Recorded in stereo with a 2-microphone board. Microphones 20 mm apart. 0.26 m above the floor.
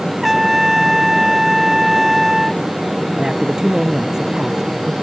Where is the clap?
No clap in this recording.